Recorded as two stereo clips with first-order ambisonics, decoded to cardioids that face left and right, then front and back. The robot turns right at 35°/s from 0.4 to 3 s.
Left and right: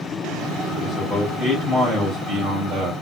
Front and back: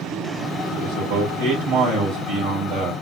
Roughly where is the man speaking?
Behind left.